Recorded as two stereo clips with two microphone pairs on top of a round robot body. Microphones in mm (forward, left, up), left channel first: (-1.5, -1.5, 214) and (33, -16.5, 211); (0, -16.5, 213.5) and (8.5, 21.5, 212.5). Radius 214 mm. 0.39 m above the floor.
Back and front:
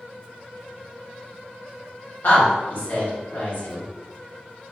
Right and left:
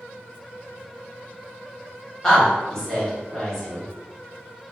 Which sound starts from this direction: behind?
A woman speaking, at 2.2 s.